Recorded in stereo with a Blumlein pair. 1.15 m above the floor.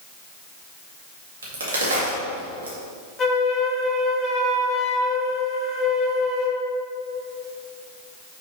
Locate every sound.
1.4 s a crack: 65° right, 2 m
3.2 s a flute: 20° left, 1.2 m